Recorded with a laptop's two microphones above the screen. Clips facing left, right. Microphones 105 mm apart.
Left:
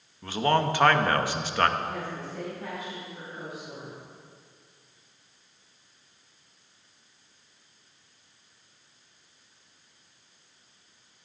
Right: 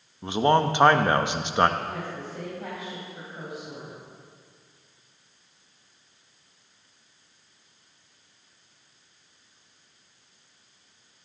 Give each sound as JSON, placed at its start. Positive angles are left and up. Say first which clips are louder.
{"t": 0.2, "sound": "a man speaking", "louder": "right 3 dB", "side_deg": -20, "distance_m": 1.0}
{"t": 1.8, "sound": "a woman speaking", "louder": "even", "side_deg": -25, "distance_m": 5.5}